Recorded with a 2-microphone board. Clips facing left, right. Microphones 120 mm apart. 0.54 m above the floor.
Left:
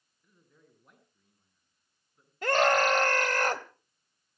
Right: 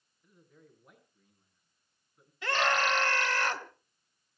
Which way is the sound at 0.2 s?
Centre (ahead or behind).